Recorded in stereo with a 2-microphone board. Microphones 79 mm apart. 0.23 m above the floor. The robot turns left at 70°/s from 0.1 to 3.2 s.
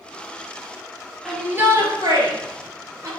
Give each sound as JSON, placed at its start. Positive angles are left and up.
{"t": 1.2, "sound": "a shout", "side_deg": 0, "distance_m": 5.0}